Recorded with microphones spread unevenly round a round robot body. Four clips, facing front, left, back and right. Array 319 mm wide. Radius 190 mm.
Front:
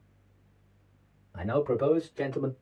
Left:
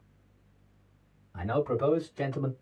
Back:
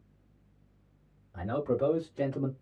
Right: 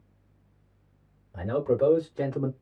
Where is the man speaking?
105° right, 2 m; by 2.5 s 65° right, 1.6 m.